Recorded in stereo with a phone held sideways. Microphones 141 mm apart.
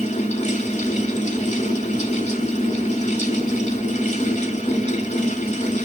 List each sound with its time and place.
0.0 s a fan: 50° left (ahead or behind), 1.0 m